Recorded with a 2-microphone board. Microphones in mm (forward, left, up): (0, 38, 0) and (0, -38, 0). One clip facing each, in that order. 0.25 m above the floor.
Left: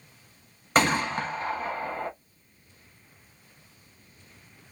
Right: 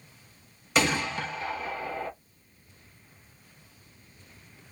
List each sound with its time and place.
0.8 s a gunshot: 45° left (ahead or behind), 0.8 m